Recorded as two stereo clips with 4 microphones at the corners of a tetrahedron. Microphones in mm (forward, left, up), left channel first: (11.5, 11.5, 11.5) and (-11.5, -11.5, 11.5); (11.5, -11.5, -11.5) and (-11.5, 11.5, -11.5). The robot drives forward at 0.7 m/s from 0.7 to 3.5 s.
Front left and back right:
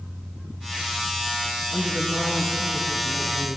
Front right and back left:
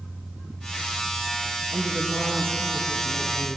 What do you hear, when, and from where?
1.7 s a woman speaking: 135° left, 4 m; by 3.6 s 145° left, 5 m